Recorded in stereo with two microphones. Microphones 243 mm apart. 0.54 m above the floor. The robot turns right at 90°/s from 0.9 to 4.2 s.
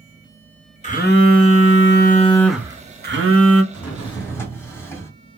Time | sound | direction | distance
0.8 | a phone buzzing | 35° left | 0.5 m
3.7 | a drawer | 130° left | 1.4 m